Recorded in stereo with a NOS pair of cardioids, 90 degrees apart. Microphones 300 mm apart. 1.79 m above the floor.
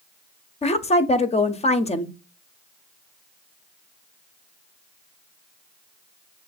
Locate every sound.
0.6 s a woman speaking: 20° left, 0.7 m